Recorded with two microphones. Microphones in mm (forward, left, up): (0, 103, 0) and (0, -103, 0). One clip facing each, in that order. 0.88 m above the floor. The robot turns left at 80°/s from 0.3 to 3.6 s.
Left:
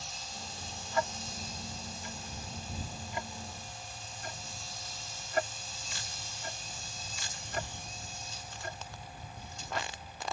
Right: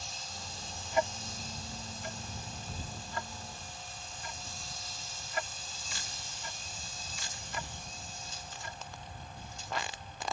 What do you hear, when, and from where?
0.9 s ticking: 15° right (ahead or behind); by 9.9 s 50° left (ahead or behind)